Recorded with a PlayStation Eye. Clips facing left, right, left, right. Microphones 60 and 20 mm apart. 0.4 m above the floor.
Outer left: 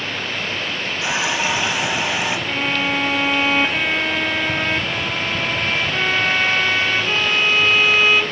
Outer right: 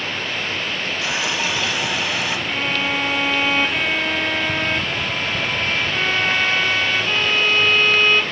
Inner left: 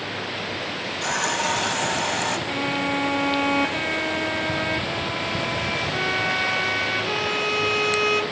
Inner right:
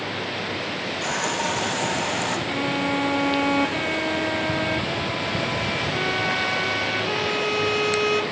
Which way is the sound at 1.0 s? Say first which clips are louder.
Outer left 4 dB, inner left 2 dB; 20° left (ahead or behind).